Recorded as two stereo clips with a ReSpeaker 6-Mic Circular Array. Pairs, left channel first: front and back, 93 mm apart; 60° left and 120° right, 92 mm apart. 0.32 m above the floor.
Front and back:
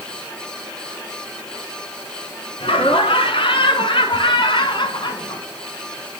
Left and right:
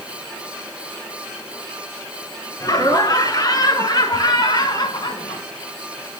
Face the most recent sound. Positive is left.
turn(degrees=30)